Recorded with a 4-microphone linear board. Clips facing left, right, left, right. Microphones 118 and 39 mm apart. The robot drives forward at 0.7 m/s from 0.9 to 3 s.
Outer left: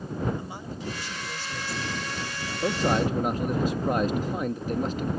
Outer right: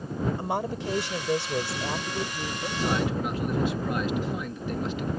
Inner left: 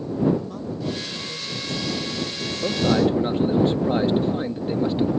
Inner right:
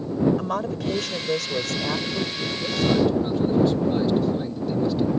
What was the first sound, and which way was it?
A woman speaking, 75° right (ahead or behind).